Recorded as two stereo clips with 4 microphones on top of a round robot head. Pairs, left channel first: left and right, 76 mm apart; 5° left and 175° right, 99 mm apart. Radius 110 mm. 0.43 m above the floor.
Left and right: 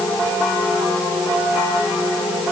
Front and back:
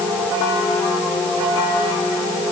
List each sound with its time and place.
Only background noise.